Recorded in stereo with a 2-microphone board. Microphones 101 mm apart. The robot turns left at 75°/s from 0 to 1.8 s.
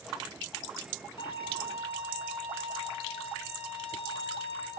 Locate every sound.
1.2 s a violin: 120° left, 1.1 m; by 4.7 s 70° left, 1.1 m